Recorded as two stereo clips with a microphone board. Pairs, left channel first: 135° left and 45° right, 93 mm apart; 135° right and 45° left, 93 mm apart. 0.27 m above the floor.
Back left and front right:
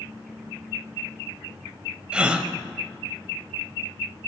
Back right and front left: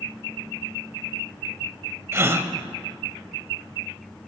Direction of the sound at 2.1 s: 20° left.